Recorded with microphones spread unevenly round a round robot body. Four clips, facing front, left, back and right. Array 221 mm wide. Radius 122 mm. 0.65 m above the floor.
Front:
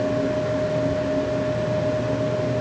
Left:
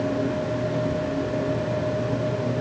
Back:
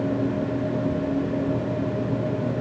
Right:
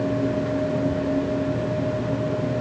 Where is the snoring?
I don't hear snoring.